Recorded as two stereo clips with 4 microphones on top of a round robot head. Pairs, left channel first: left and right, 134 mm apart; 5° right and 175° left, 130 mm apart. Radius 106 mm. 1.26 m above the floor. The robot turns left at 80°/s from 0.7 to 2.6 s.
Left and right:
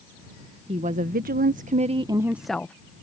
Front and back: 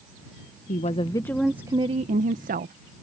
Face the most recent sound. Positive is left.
turn(degrees=170)